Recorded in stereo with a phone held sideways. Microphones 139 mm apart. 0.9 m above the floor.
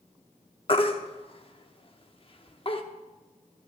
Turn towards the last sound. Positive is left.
turn(degrees=40)  # may be behind; listen again after turning